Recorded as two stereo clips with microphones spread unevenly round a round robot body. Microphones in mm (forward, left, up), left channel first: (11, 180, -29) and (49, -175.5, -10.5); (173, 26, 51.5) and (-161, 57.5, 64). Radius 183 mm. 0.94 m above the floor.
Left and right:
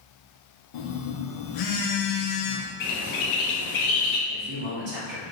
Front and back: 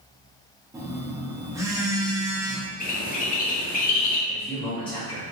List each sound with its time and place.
0.7 s a phone buzzing: 95° left, 0.7 m
2.8 s a bird: 60° left, 0.9 m
4.3 s a man speaking: 80° right, 1.2 m